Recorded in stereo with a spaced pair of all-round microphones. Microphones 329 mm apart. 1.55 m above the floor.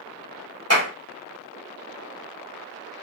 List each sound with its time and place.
0.7 s a clap: 45° left (ahead or behind), 1.4 m